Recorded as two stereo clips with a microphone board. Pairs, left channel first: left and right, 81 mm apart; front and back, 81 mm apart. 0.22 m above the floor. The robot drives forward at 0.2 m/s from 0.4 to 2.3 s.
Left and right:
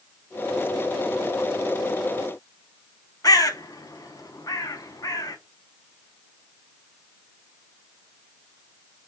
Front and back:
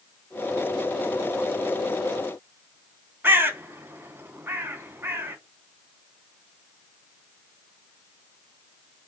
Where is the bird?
120° left, 0.6 m.